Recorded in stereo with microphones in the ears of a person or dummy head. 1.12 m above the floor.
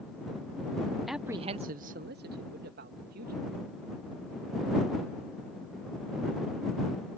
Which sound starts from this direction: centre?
A man speaking, at 1.1 s.